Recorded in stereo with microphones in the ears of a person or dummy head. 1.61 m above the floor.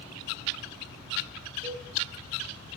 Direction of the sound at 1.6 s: 20° left (ahead or behind).